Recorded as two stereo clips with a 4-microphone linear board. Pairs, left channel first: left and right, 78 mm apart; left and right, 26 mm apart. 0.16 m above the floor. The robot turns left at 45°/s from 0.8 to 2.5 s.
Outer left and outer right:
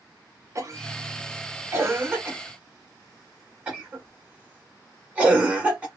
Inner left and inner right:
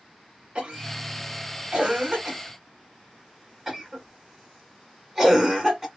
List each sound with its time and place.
0.6 s a cough: 40° right (ahead or behind), 1.3 m; by 5.9 s 15° right (ahead or behind), 1.3 m